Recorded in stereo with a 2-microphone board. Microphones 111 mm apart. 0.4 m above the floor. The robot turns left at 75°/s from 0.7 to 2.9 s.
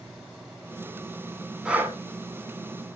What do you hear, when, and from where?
1.6 s breathing: 5° right (ahead or behind), 0.8 m; by 2.0 s 30° right (ahead or behind), 0.8 m